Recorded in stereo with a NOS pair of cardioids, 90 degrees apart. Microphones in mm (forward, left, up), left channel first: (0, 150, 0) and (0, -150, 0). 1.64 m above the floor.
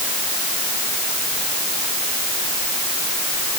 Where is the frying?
I don't hear frying.